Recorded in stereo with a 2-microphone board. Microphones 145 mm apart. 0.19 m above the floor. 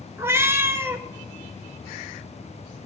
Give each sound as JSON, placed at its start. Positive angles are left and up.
{"t": 0.2, "sound": "a cat meowing", "side_deg": -15, "distance_m": 0.9}